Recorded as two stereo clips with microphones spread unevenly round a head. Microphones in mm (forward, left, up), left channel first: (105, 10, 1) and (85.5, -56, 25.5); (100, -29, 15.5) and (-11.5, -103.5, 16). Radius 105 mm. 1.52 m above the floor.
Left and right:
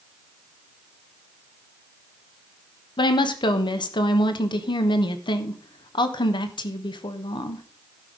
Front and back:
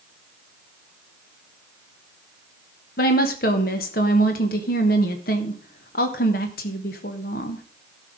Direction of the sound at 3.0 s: 70° left.